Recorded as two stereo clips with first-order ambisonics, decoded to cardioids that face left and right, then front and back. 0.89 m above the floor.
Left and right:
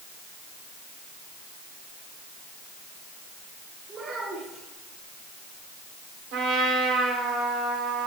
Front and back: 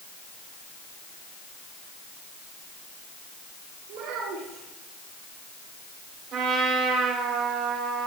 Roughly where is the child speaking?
Behind right.